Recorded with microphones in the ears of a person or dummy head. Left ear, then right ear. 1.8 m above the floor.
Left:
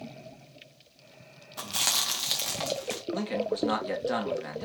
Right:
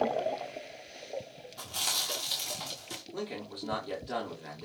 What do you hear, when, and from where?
1.6 s chewing: 50° left (ahead or behind), 2.0 m
3.1 s a man speaking: 60° left (ahead or behind), 3 m